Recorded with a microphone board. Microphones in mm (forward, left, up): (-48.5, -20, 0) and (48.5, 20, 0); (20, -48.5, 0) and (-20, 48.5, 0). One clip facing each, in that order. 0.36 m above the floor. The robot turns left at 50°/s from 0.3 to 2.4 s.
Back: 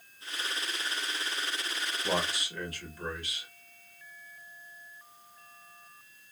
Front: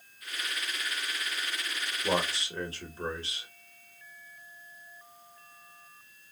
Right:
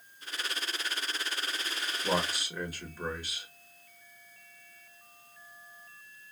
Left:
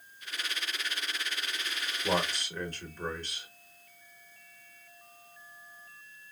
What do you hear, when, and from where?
2.0 s a man speaking: 25° left, 0.9 m; by 3.5 s 10° left, 0.9 m